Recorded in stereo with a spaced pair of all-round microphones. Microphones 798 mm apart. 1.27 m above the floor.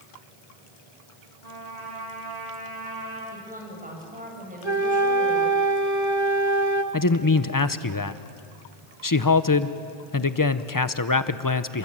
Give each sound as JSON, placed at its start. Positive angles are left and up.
{"t": 1.4, "sound": "a trumpet", "side_deg": -55, "distance_m": 5.5}
{"t": 3.3, "sound": "a woman speaking", "side_deg": -10, "distance_m": 7.0}
{"t": 4.6, "sound": "a flute", "side_deg": -20, "distance_m": 1.3}
{"t": 6.9, "sound": "a man speaking", "side_deg": 25, "distance_m": 0.7}